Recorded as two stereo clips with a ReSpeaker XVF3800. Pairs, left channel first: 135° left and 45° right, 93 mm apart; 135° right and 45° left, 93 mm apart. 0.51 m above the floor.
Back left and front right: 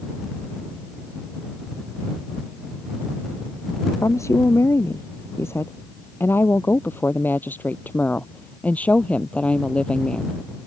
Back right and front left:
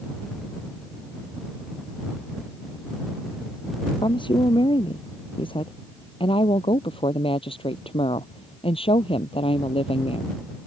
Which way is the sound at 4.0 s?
165° right.